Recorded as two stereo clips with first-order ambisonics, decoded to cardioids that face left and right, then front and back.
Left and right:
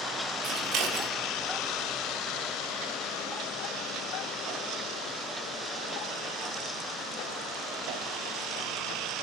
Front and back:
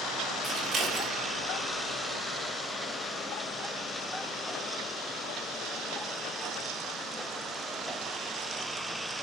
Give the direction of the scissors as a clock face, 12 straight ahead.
4 o'clock.